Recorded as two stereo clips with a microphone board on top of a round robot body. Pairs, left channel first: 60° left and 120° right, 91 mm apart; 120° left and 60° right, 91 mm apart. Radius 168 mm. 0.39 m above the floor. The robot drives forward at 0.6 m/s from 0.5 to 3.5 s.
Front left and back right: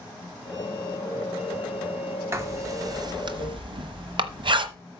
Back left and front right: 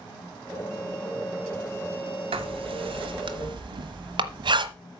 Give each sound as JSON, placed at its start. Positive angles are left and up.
{"t": 2.3, "sound": "writing", "azimuth_deg": -60, "distance_m": 1.3}